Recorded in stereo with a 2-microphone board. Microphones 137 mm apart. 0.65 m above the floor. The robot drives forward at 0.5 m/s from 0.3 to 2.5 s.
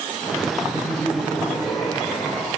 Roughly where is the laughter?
Centre.